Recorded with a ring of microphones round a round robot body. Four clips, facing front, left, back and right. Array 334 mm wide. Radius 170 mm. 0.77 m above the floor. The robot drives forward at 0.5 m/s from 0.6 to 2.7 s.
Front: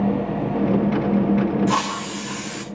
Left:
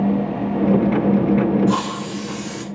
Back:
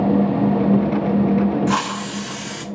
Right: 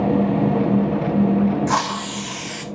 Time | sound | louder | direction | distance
1.7 | a hiss | even, back 1 dB | 100° right | 1.2 m